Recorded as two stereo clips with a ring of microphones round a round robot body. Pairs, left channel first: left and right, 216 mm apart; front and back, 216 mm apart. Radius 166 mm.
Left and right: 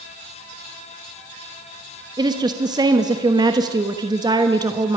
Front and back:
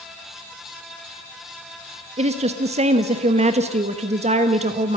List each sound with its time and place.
2.2 s a woman speaking: 150° right, 1.2 m